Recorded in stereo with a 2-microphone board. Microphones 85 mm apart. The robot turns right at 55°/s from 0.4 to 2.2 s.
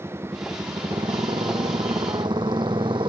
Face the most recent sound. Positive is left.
turn(degrees=-65)  # may be behind; listen again after turning